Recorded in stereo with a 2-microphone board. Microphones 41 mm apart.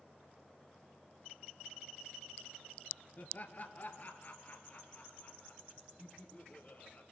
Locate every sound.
3.2 s laughter: 45° left (ahead or behind), 2.5 m